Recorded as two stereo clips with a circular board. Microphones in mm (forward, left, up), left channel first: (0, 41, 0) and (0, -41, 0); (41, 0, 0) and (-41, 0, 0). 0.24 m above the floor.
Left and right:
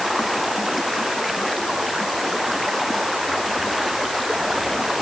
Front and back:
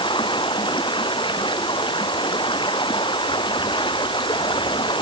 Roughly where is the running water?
Ahead.